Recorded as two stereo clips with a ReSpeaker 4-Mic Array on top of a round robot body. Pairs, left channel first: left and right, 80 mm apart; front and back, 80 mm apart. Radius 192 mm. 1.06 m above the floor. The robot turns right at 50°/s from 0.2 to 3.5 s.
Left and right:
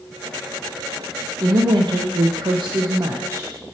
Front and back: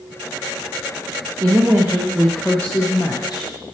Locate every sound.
1.4 s a woman speaking: 135° right, 0.8 m; by 3.5 s 30° right, 0.8 m